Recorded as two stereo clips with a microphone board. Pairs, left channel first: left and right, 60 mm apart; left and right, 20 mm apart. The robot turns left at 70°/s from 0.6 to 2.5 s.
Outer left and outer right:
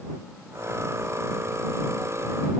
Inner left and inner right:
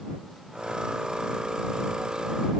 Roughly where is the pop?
No pop in this recording.